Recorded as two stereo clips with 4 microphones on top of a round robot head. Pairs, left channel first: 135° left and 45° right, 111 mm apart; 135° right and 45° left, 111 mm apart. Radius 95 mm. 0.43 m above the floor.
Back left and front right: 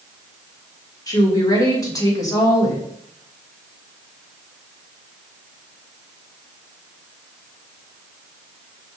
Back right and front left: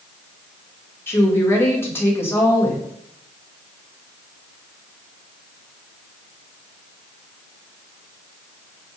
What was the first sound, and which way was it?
A woman speaking, 170° left.